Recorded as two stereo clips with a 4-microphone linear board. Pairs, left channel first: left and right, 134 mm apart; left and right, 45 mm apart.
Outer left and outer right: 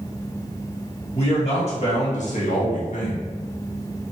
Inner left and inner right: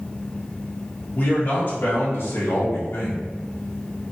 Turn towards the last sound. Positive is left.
turn(degrees=75)  # may be behind; listen again after turning